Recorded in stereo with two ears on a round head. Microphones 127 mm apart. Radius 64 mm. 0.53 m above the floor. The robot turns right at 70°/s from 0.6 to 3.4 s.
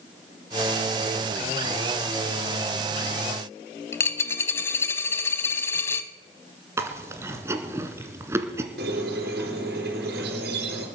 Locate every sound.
3.9 s a dropped coin: 20° left (ahead or behind), 0.8 m
6.8 s chewing: 20° right (ahead or behind), 1.5 m
8.8 s a squeak: 90° right, 4 m